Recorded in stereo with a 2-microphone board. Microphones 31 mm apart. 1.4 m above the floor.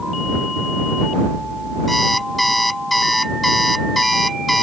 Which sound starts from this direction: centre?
An alarm clock, at 1.9 s.